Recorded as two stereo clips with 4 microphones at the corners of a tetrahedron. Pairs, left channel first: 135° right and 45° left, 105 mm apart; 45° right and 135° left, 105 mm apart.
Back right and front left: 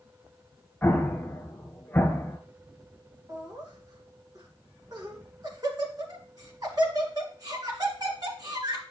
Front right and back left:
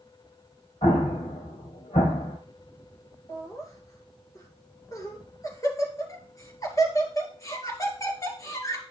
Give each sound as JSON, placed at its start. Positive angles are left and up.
{"t": 0.8, "sound": "an explosion", "azimuth_deg": -60, "distance_m": 1.5}
{"t": 3.3, "sound": "laughter", "azimuth_deg": 5, "distance_m": 2.5}